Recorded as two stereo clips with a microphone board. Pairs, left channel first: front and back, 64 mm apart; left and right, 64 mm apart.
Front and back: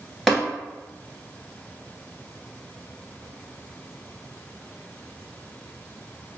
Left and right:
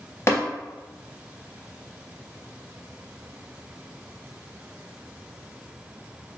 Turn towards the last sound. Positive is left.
turn(degrees=90)